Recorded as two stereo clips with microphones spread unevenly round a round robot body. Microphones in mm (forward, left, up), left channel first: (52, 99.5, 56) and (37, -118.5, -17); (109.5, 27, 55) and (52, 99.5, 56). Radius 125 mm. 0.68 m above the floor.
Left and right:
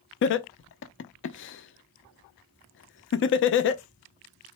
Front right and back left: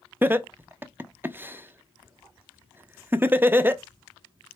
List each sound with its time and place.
0.2 s laughter: 75° left, 0.6 m